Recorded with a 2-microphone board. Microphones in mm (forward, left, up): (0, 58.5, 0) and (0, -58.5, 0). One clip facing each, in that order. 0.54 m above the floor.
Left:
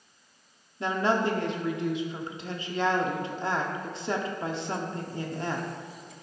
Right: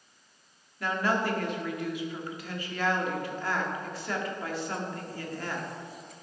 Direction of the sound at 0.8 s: 25° left (ahead or behind).